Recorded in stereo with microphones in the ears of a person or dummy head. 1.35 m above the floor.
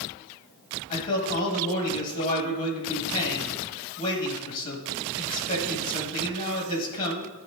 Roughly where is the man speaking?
Left.